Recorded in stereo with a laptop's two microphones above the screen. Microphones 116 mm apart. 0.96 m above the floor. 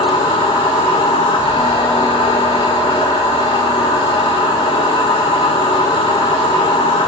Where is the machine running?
45° left (ahead or behind), 1.6 m.